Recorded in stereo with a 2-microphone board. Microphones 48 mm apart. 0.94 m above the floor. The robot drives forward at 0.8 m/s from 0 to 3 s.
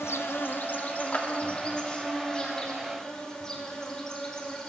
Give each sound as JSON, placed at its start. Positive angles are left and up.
{"t": 0.0, "sound": "an insect", "side_deg": 65, "distance_m": 0.8}
{"t": 1.1, "sound": "a clap", "side_deg": 35, "distance_m": 1.7}